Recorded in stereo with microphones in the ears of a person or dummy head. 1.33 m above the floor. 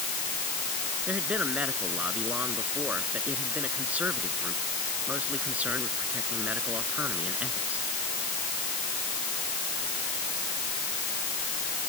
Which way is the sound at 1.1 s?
5° right (ahead or behind).